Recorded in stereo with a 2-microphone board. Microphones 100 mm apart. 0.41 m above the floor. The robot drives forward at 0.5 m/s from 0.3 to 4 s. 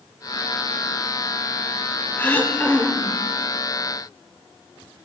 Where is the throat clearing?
15° left (ahead or behind), 0.5 m; by 3.2 s 10° left (ahead or behind), 0.8 m.